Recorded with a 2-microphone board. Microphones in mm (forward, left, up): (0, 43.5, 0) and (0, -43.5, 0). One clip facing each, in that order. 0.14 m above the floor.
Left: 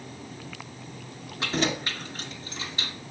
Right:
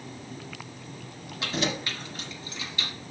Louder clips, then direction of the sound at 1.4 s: Left 2 dB; 35° left (ahead or behind).